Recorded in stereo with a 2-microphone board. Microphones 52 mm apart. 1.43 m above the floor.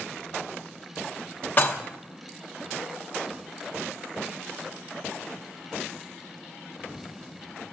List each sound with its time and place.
1.6 s dishes clattering: 35° left (ahead or behind), 0.9 m